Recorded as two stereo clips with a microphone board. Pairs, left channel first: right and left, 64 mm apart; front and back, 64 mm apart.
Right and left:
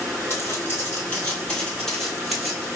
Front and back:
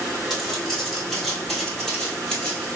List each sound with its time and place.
0.3 s footsteps: 100° right, 1.6 m; by 2.7 s 35° left, 1.4 m